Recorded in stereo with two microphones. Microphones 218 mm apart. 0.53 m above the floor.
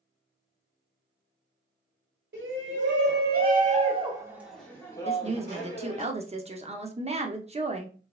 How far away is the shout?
About 2 m.